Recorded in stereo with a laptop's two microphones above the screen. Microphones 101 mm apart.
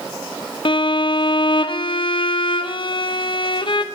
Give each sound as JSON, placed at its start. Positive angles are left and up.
{"t": 0.7, "sound": "a violin", "side_deg": 55, "distance_m": 0.9}